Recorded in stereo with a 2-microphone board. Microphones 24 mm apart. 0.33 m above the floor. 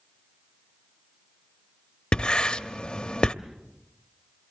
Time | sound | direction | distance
2.1 | writing | 40° left (ahead or behind) | 0.8 m